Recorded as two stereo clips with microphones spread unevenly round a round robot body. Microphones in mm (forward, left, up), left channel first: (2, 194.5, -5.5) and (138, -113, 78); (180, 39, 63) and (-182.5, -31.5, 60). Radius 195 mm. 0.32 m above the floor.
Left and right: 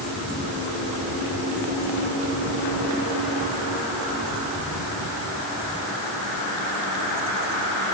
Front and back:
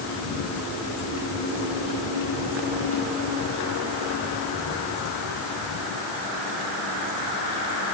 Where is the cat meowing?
I don't hear a cat meowing.